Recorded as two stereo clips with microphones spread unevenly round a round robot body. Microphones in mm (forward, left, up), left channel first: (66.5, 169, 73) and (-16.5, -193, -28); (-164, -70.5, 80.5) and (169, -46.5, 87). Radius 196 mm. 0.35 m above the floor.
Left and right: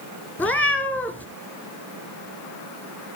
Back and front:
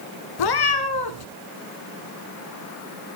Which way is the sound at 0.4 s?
165° left.